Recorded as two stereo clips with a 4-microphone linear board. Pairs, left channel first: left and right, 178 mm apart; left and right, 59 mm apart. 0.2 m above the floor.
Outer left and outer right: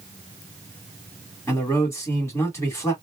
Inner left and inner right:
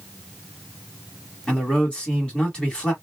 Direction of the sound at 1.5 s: 15° left (ahead or behind).